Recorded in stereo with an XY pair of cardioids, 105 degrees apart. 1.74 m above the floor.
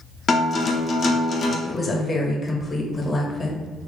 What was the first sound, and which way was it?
A guitar, 50° left.